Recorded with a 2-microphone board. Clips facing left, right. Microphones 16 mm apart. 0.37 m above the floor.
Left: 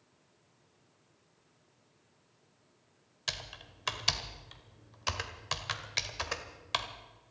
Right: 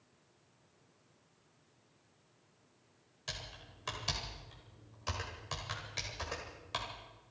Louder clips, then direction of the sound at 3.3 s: Left 6 dB; 40° left (ahead or behind).